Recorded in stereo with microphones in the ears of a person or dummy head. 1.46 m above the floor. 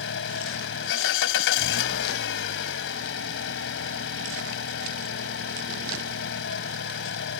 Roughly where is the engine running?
Left.